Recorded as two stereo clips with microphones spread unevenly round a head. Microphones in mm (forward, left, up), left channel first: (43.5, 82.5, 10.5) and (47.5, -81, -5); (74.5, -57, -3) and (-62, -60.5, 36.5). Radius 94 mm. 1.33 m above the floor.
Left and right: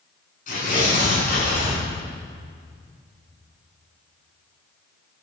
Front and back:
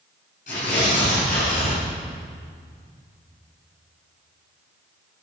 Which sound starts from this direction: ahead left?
Tearing paper, at 0.5 s.